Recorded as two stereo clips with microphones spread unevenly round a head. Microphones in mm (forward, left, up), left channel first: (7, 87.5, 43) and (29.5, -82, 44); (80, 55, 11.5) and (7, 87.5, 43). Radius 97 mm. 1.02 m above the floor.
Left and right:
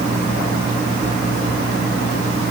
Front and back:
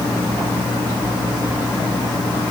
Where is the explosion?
I don't hear an explosion.